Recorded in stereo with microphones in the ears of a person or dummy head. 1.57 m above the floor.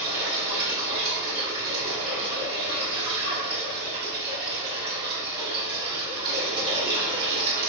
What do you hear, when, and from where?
0.0 s running water: 55° right (ahead or behind), 1.3 m